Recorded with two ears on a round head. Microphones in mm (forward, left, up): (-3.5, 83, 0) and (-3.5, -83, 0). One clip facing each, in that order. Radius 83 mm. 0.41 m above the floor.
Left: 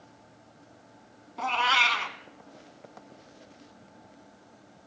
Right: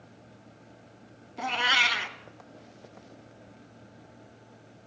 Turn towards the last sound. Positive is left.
turn(degrees=-20)  # may be behind; listen again after turning